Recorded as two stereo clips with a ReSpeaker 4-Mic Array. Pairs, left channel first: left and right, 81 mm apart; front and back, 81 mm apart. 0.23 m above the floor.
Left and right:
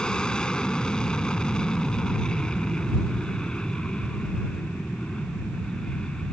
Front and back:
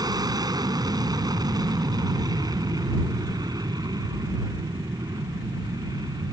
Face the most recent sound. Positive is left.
turn(degrees=165)